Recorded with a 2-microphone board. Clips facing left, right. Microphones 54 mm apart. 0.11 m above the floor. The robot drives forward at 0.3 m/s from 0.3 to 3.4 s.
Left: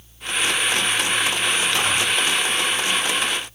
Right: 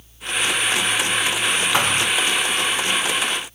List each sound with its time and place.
1.7 s a thud: 70° right (ahead or behind), 6 m